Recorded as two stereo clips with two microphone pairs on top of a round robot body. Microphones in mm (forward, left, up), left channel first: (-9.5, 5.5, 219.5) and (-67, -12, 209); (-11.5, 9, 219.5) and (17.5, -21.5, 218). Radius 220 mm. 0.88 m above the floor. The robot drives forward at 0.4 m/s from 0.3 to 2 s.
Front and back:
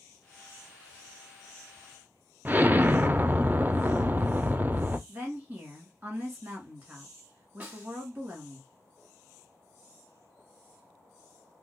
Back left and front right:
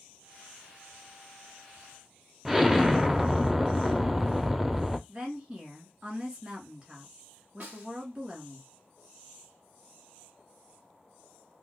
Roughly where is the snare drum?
Right.